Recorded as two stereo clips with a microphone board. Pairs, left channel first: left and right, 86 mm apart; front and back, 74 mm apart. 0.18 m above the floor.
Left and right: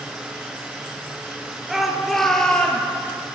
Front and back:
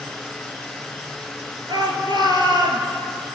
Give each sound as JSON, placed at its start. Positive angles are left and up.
{"t": 1.7, "sound": "a shout", "azimuth_deg": -175, "distance_m": 3.5}